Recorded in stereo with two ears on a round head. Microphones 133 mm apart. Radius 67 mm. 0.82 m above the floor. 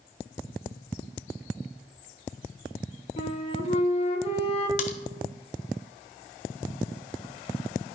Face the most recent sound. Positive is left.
turn(degrees=55)  # may be behind; listen again after turning